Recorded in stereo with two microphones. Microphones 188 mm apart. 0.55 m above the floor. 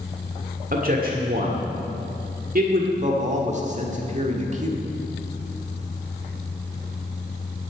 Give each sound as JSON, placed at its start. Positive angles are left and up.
{"t": 0.7, "sound": "a man speaking", "side_deg": -50, "distance_m": 1.6}
{"t": 2.9, "sound": "a man speaking", "side_deg": -40, "distance_m": 1.6}